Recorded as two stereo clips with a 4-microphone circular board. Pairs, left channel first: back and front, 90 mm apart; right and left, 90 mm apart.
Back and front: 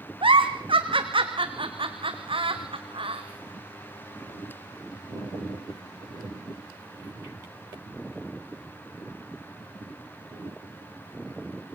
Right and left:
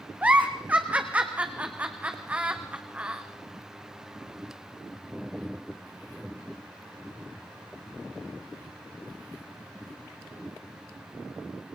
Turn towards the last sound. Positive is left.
turn(degrees=15)